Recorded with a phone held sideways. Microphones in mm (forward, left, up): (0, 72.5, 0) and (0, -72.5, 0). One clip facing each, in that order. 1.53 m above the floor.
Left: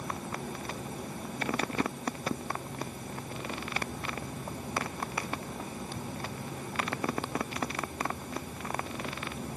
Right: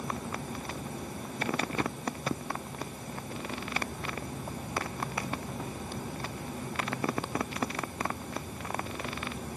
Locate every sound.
Only background noise.